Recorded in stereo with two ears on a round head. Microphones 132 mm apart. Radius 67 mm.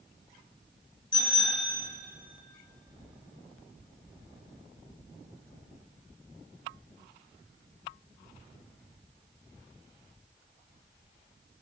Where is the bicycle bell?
35° left (ahead or behind), 7.5 m.